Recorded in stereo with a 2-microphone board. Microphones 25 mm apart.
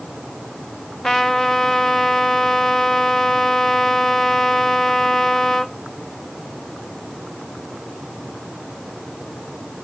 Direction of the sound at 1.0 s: 20° left (ahead or behind).